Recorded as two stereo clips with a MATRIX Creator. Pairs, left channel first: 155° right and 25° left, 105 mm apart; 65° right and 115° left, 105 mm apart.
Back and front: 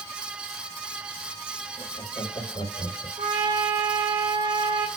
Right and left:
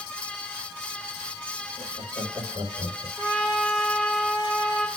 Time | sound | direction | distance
1.8 | laughter | 165° left | 4 m
3.2 | a trumpet | 30° left | 3 m